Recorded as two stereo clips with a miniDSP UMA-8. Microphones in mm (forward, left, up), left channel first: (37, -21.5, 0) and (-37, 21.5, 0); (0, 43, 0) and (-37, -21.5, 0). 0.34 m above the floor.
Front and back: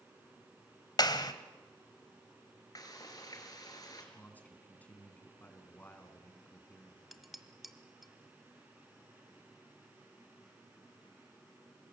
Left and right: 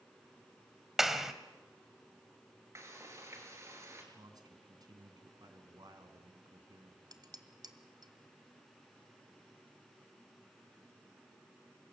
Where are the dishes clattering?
120° right, 1.3 m.